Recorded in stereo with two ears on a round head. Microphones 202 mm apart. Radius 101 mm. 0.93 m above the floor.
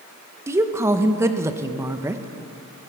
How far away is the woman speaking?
About 0.7 m.